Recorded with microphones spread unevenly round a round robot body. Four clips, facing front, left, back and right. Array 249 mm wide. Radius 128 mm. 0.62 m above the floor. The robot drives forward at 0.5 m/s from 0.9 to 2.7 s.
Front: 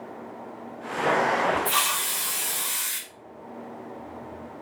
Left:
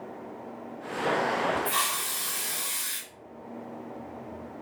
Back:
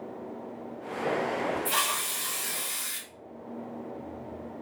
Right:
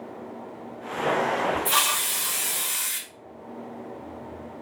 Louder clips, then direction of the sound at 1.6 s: Right 4 dB, front 3 dB; 120° right.